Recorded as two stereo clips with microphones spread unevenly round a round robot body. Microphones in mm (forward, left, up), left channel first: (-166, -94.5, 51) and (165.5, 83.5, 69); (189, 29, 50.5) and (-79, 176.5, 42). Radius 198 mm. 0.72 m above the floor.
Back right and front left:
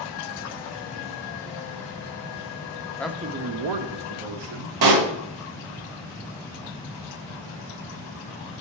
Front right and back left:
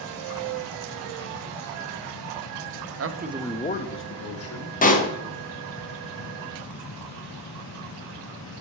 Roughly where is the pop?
Ahead left.